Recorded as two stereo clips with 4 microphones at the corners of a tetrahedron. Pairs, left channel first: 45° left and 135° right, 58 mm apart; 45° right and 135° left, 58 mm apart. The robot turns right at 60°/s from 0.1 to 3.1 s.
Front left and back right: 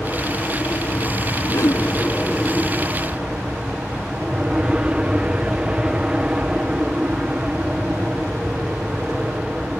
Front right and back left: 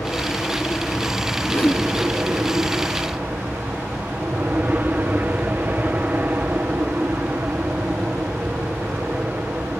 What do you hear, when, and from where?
0.0 s an aircraft: 15° right; by 9.8 s 165° left
1.5 s a whoosh: 5° left; by 1.8 s 30° left